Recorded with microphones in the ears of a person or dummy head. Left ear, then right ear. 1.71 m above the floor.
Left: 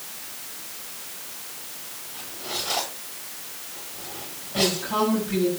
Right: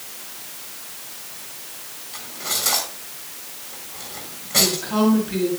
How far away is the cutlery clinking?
About 8.5 m.